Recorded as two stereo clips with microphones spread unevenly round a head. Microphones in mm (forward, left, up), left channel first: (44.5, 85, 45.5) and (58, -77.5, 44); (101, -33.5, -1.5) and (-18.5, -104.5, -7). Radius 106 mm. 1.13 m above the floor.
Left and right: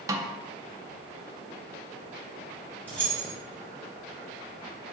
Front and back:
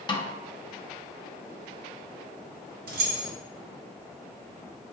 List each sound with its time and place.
0.1 s a snare drum: 20° right, 0.6 m
2.9 s keys jangling: 175° left, 0.6 m